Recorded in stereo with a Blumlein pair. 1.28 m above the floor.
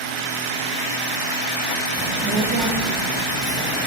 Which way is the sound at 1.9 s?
20° right.